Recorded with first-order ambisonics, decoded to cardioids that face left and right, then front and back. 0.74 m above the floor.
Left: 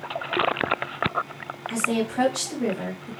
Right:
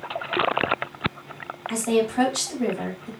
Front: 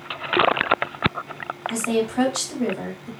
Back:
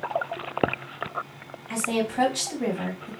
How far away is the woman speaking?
About 1.9 m.